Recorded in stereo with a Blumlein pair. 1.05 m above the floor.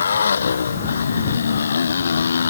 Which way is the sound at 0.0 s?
70° left.